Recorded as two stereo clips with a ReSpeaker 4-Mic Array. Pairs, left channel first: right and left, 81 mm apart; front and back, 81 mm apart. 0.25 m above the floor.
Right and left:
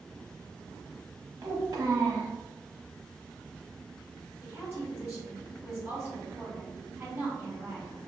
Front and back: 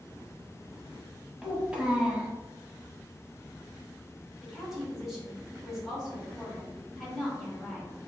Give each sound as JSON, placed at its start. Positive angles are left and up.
{"t": 1.4, "sound": "a child speaking", "azimuth_deg": 105, "distance_m": 1.0}
{"t": 4.4, "sound": "a woman speaking", "azimuth_deg": 95, "distance_m": 1.4}